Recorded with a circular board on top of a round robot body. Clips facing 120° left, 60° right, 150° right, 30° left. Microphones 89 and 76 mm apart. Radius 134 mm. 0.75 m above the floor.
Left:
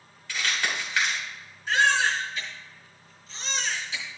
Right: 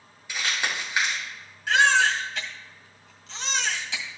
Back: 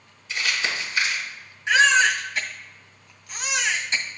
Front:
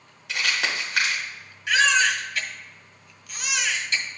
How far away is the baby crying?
About 1.9 m.